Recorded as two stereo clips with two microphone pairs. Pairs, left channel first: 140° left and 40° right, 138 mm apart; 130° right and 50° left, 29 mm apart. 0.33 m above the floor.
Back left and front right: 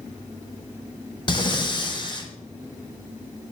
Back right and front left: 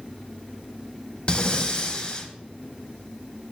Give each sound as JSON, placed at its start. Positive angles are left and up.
{"t": 1.3, "sound": "breathing", "azimuth_deg": -175, "distance_m": 1.0}